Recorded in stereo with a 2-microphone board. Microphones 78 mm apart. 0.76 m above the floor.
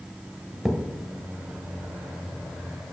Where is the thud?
5° right (ahead or behind), 0.9 m.